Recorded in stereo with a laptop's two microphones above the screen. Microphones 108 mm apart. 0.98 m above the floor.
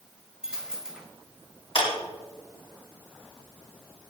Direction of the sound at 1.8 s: 60° left (ahead or behind).